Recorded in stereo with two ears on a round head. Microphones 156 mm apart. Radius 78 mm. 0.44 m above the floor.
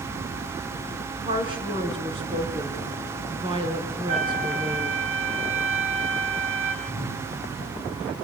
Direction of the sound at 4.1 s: 40° right (ahead or behind).